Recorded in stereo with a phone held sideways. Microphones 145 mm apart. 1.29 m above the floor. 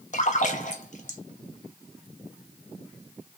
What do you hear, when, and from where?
0.1 s a splash: 60° left (ahead or behind), 0.8 m